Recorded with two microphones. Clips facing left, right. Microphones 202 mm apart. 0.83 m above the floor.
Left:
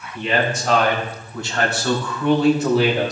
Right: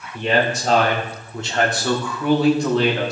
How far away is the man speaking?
About 2.5 m.